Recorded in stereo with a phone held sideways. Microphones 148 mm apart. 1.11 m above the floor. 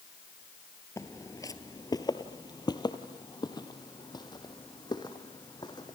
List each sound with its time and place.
1.0 s footsteps: 20° left (ahead or behind), 1.1 m; by 6.0 s 25° left (ahead or behind), 3 m